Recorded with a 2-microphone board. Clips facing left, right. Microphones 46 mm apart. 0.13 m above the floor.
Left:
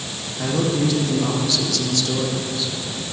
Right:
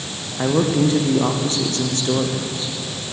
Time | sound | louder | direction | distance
0.4 | a man speaking | right 3 dB | 30° right (ahead or behind) | 5.5 m